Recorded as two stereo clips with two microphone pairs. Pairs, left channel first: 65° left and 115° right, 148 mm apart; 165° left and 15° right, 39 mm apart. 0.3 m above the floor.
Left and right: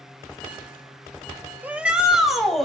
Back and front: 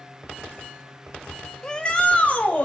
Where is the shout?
165° right, 1.2 m; by 2.6 s 155° left, 1.6 m.